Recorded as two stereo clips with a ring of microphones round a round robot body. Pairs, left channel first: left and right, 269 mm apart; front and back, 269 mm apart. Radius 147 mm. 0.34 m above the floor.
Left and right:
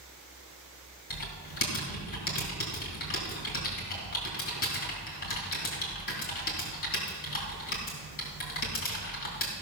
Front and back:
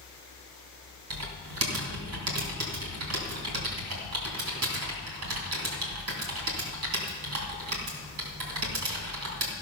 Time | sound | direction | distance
1.1 | typing on a keyboard | 150° left | 2.5 m